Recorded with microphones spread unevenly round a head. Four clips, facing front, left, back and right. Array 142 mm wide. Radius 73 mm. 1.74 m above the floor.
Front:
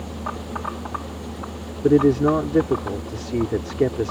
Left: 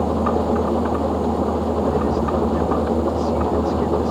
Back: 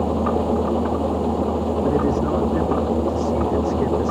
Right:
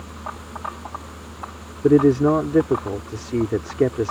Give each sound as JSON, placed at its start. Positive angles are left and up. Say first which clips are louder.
{"t": 0.0, "sound": "an engine running", "louder": "left 16 dB, back 11 dB", "azimuth_deg": 130}
{"t": 1.8, "sound": "a man speaking", "louder": "right 5 dB, front 7 dB", "azimuth_deg": -55}